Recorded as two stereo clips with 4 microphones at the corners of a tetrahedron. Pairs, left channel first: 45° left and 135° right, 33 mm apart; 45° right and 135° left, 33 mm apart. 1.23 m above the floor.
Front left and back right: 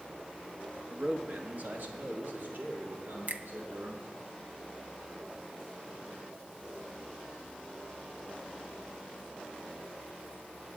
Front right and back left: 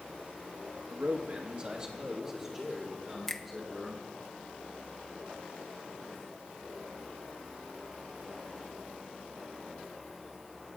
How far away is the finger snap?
About 0.6 m.